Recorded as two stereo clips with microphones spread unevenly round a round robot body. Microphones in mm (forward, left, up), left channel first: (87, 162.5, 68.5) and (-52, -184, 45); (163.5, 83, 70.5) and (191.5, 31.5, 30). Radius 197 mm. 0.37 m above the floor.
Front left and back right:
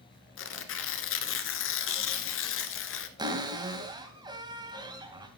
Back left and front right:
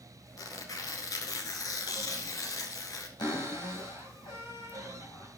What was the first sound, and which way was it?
Tearing paper, 125° left.